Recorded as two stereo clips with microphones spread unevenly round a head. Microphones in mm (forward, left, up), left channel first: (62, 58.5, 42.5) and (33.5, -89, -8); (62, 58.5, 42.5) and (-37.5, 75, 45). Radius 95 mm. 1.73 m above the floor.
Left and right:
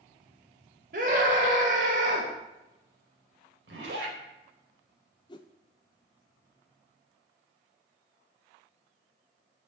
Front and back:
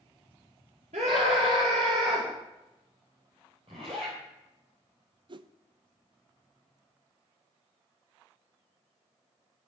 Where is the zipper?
135° right, 4 m.